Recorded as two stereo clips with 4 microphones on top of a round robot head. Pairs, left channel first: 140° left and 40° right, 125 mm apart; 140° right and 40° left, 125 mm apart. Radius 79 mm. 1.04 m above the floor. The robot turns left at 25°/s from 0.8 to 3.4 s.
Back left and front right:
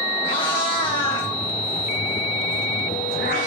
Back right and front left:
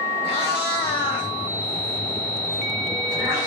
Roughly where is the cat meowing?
Behind.